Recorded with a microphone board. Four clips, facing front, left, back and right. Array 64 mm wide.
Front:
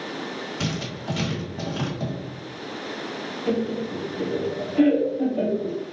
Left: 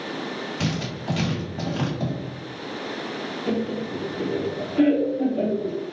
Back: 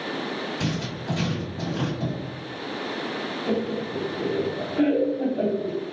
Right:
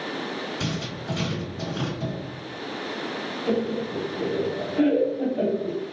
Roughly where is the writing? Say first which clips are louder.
Left 3 dB, back 1 dB; ahead left.